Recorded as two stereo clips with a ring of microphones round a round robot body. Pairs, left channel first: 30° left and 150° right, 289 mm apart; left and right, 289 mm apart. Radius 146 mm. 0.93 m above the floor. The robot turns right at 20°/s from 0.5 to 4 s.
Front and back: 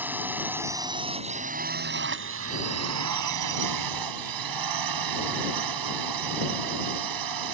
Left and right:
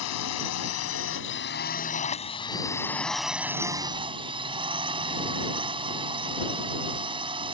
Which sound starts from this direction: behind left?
A drone, at 0.0 s.